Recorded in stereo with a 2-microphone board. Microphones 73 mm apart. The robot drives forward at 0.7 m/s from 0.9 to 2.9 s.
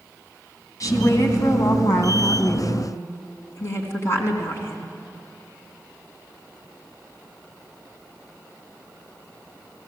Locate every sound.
0.8 s a woman speaking: 50° left (ahead or behind), 3 m; by 4.9 s 40° left (ahead or behind), 3.5 m